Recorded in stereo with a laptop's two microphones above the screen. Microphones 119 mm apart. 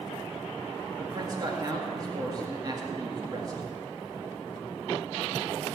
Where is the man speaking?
30° right (ahead or behind), 2 m.